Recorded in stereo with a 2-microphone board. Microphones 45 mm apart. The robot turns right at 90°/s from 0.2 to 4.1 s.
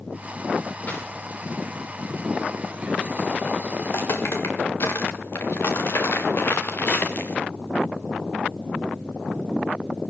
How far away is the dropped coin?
About 9 m.